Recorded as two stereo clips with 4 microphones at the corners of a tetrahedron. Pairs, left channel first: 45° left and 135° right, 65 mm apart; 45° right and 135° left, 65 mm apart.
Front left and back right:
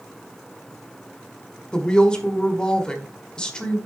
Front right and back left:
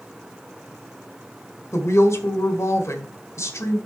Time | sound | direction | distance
1.7 | a woman speaking | 30° right | 1.6 m